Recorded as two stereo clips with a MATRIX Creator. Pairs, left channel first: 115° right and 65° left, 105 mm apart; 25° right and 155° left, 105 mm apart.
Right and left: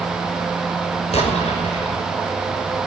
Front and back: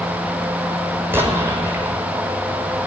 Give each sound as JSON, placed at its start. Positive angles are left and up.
{"t": 1.1, "sound": "an explosion", "azimuth_deg": -130, "distance_m": 5.5}